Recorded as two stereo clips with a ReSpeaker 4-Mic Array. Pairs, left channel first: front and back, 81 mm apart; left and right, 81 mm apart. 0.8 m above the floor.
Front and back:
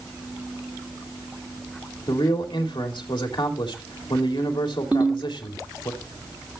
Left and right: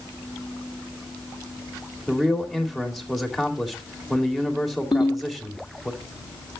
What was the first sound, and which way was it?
A man speaking, straight ahead.